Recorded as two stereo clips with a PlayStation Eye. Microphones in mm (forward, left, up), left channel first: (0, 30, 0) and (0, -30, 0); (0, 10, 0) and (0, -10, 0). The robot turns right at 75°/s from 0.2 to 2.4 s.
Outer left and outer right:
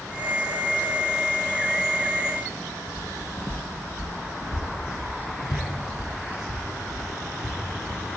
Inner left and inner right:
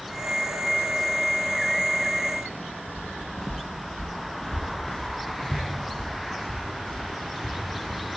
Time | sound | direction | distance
3.0 | footsteps | centre (ahead or behind) | 0.9 m